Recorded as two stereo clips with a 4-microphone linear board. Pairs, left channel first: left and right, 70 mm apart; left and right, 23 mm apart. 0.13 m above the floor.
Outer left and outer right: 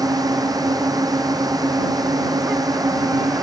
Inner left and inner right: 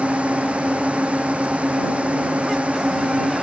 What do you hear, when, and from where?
0.0 s a drone: 60° right (ahead or behind)